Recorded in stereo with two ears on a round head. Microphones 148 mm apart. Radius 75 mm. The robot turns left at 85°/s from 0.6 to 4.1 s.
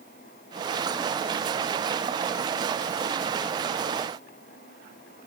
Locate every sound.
Only background noise.